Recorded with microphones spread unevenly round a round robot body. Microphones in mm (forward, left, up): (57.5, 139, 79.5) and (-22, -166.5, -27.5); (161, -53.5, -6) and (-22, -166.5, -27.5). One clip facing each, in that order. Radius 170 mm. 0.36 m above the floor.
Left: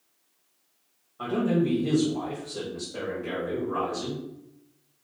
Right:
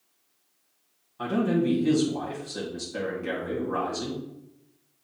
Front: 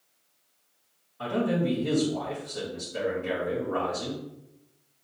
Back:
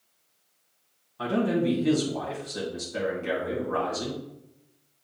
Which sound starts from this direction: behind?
A man speaking, at 1.2 s.